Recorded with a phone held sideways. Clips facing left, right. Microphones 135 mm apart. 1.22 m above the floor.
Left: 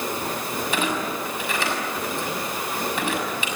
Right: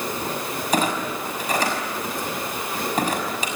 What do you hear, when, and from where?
0.7 s a clunk: 40° right (ahead or behind), 6 m